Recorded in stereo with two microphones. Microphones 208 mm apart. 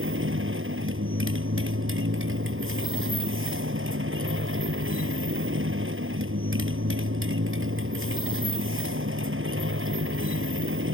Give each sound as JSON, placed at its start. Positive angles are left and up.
{"t": 0.0, "sound": "a motorcycle", "side_deg": -75}